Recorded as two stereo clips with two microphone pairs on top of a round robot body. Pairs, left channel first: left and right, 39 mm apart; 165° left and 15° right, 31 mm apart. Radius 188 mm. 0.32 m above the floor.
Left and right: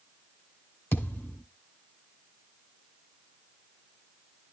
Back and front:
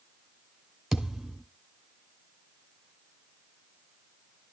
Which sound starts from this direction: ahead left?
A thud, at 0.9 s.